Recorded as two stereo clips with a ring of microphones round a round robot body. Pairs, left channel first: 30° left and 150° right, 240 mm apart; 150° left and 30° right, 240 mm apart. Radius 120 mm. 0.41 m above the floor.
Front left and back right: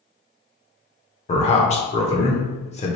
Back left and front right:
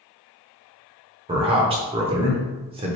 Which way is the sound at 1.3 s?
5° left.